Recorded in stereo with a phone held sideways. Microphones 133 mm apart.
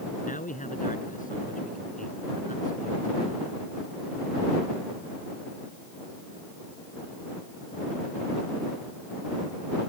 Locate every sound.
0.2 s a man speaking: 85° left